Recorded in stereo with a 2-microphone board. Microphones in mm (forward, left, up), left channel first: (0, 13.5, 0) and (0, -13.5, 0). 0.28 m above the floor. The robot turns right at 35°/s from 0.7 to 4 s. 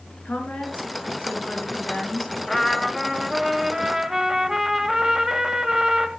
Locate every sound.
0.2 s a woman speaking: 90° left, 5 m; by 2.3 s 145° left, 5 m
2.5 s a trumpet: 165° left, 1.3 m; by 6.1 s 140° right, 1.3 m